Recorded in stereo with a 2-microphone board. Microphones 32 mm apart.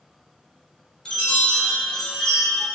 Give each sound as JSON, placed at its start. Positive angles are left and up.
{"t": 1.1, "sound": "a chime", "side_deg": 20, "distance_m": 0.6}